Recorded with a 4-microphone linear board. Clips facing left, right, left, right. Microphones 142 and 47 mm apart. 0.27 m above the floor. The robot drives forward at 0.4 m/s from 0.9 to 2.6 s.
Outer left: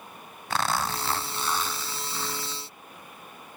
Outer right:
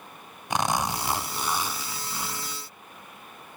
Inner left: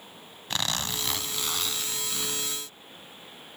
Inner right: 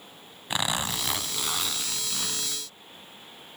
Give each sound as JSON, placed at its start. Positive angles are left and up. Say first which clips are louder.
{"t": 0.5, "sound": "a zipper", "louder": "outer right 2 dB, inner right 2 dB", "side_deg": -15, "distance_m": 0.6}